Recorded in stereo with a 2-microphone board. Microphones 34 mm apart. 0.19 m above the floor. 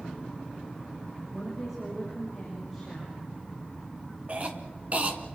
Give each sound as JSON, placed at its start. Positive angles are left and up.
{"t": 1.3, "sound": "a woman speaking", "side_deg": -5, "distance_m": 8.0}
{"t": 4.3, "sound": "a cough", "side_deg": -40, "distance_m": 2.5}